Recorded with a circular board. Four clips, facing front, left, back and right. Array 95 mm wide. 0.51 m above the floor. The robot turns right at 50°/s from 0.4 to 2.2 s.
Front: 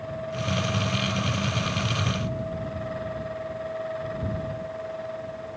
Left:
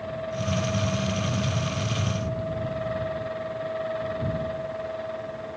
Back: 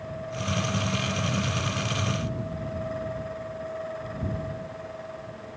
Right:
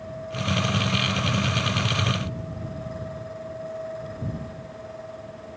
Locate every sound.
Only background noise.